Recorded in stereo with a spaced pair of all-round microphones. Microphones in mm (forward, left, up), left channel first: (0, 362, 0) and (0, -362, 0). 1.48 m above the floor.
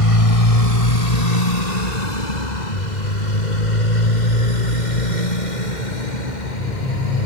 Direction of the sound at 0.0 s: 50° left (ahead or behind).